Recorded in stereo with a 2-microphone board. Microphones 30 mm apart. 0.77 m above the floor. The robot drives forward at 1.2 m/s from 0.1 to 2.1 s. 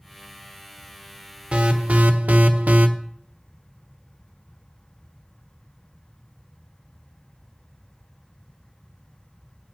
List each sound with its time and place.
1.5 s an alarm: 35° right (ahead or behind), 1.3 m; by 2.9 s 65° right (ahead or behind), 0.8 m